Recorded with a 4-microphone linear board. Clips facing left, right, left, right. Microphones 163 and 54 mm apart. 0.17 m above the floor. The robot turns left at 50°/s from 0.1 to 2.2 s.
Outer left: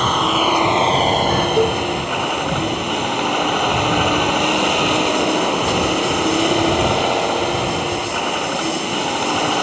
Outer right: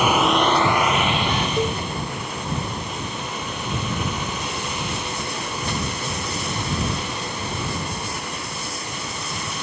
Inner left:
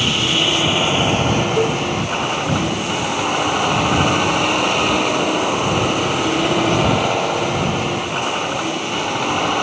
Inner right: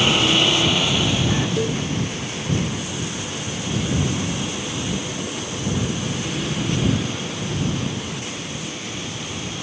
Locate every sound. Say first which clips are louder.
0.0 s a vehicle: even, even; 170° right; by 9.7 s 85° left
1.6 s a cowbell: outer left 9 dB, inner left 6 dB; 30° left (ahead or behind); by 1.8 s 15° left (ahead or behind)